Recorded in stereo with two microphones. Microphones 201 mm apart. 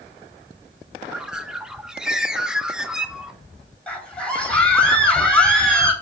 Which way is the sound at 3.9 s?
5° left (ahead or behind).